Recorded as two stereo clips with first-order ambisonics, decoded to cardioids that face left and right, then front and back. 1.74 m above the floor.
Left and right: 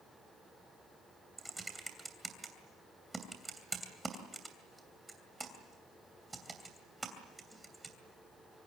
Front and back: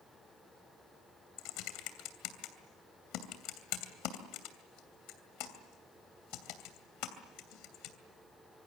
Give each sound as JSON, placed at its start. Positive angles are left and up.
{"t": 1.4, "sound": "typing on a keyboard", "azimuth_deg": -10, "distance_m": 2.5}